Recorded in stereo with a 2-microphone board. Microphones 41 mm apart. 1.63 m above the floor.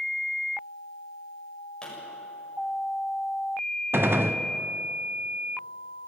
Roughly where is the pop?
Centre.